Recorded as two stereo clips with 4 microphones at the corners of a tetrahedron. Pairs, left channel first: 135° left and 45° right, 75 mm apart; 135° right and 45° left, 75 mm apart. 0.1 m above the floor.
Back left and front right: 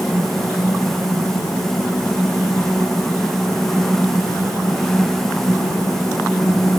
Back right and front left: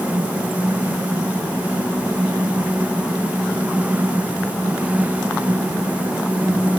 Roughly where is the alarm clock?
I don't hear an alarm clock.